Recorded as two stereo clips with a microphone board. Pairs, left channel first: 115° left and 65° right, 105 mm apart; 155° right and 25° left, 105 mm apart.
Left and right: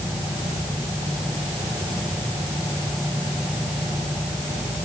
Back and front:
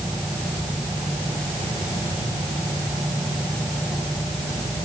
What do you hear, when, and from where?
Only background noise.